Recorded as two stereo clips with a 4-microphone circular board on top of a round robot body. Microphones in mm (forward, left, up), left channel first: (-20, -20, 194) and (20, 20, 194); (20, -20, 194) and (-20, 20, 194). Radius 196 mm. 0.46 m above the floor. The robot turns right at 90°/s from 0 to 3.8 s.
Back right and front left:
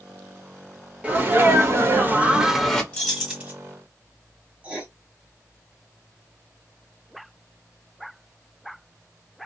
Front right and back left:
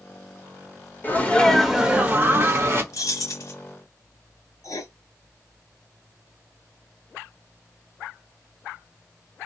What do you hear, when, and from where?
1.0 s a sneeze: 15° right, 1.2 m; by 2.8 s 145° left, 1.2 m
2.9 s keys jangling: 65° right, 1.6 m; by 3.5 s 10° right, 1.6 m
4.6 s writing: 20° right, 1.1 m